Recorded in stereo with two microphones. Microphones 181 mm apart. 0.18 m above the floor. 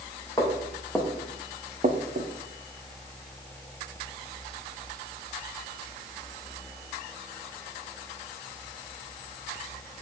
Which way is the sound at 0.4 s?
20° left (ahead or behind).